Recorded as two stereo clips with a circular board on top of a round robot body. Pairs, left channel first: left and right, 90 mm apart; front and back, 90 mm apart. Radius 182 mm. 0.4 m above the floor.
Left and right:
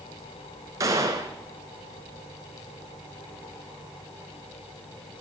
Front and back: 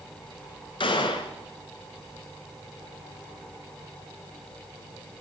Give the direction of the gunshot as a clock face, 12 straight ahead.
1 o'clock.